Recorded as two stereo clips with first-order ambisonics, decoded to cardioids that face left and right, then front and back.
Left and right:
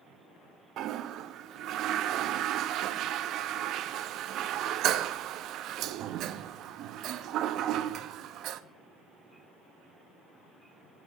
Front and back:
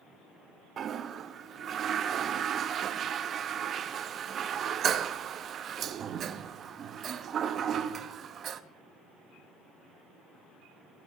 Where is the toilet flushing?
125° right, 0.5 m.